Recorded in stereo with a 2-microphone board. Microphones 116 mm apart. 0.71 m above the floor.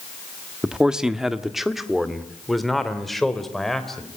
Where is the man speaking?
5° right (ahead or behind), 1.2 m; by 4.1 s 5° left (ahead or behind), 3 m.